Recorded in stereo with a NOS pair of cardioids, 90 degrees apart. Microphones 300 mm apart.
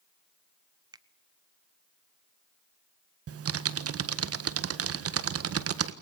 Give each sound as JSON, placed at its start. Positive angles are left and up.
{"t": 0.9, "sound": "a finger snap", "azimuth_deg": -15, "distance_m": 1.1}
{"t": 3.3, "sound": "typing on a keyboard", "azimuth_deg": -50, "distance_m": 1.6}